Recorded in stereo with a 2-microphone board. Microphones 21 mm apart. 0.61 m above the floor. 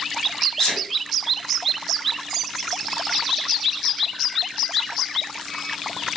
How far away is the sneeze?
About 5 m.